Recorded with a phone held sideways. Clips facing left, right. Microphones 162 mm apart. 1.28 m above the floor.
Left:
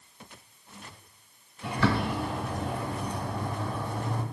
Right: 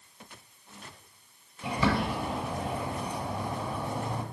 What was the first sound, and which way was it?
A bird, 15° right (ahead or behind).